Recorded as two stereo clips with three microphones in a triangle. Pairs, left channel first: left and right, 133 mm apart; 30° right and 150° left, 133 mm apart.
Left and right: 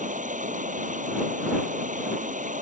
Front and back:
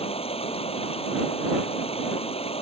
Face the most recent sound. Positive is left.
turn(degrees=-75)